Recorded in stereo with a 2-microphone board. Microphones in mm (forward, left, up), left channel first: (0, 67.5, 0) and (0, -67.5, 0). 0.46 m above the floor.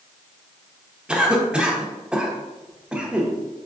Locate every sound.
1.1 s a cough: 5° right (ahead or behind), 0.8 m